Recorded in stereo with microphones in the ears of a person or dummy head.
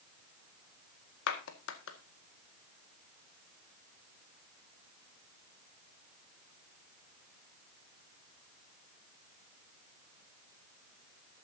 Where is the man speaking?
No man speaking in this recording.